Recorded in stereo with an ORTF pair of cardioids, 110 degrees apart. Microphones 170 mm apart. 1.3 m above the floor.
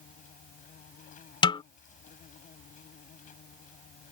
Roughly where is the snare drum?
Ahead left.